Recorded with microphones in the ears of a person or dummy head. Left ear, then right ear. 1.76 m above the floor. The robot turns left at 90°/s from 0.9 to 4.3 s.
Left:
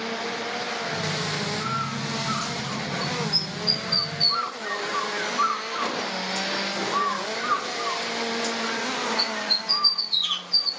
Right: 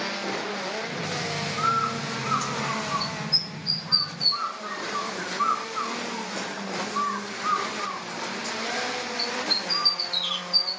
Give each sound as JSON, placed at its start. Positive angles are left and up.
{"t": 1.6, "sound": "a bird", "side_deg": 5, "distance_m": 0.9}